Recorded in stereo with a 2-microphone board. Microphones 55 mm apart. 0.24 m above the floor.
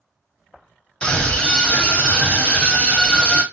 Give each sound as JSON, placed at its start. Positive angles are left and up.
{"t": 1.0, "sound": "a scream", "side_deg": 20, "distance_m": 1.3}